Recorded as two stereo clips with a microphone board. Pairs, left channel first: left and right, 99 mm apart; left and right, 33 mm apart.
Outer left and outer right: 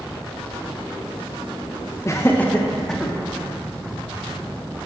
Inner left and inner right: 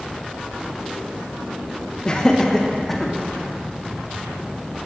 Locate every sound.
2.0 s laughter: 30° left (ahead or behind), 0.7 m; by 3.1 s centre (ahead or behind), 1.2 m